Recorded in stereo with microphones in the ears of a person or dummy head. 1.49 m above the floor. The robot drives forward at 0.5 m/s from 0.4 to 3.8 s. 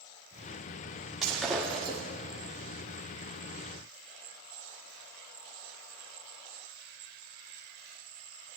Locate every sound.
1.2 s breaking glass: centre (ahead or behind), 1.0 m